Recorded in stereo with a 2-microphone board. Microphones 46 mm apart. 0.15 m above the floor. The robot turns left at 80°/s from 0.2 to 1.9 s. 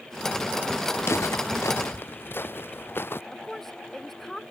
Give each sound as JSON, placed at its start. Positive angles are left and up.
{"t": 1.0, "sound": "footsteps", "side_deg": 55}
{"t": 3.3, "sound": "a woman speaking", "side_deg": 5}